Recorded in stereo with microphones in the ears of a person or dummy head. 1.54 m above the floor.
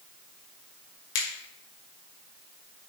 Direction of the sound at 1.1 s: 75° left (ahead or behind).